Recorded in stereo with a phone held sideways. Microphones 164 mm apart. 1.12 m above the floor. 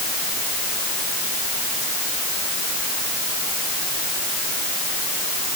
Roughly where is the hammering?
I don't hear hammering.